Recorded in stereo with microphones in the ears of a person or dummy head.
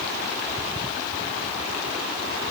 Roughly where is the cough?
No cough in this recording.